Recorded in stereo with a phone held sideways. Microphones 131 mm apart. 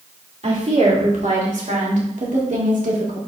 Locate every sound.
0.4 s a woman speaking: 60° right (ahead or behind), 3 m; by 3.2 s 85° right, 2 m